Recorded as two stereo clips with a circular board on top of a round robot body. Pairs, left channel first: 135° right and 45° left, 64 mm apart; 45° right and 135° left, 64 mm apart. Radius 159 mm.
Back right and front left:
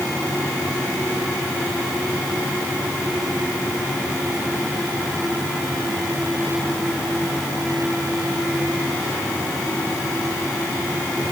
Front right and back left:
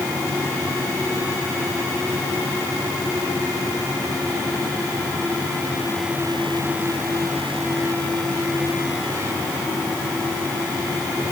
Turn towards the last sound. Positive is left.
No sound to turn to.